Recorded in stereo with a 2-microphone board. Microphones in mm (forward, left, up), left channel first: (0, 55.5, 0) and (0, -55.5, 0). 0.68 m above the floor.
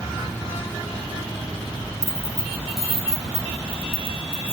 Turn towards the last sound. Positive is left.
turn(degrees=-50)  # may be behind; listen again after turning